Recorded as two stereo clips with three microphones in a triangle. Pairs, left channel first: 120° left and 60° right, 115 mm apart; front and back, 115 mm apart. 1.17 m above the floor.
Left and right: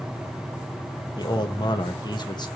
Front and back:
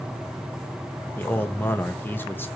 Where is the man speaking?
70° left, 1.5 m.